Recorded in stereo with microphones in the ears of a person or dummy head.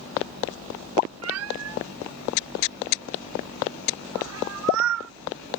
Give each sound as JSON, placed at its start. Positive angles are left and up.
{"t": 1.2, "sound": "a cat meowing", "side_deg": -75}